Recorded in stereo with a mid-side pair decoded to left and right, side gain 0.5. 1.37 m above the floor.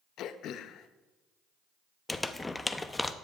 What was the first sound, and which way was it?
Throat clearing, 65° left.